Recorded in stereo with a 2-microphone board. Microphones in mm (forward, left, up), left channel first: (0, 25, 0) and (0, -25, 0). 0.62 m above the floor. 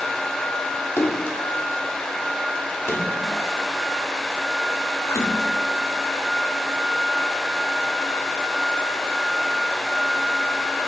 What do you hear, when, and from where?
1.0 s a splash: 55° left (ahead or behind), 1.1 m